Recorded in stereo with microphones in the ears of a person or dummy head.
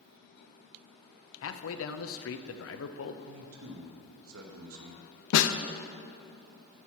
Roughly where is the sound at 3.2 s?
Right.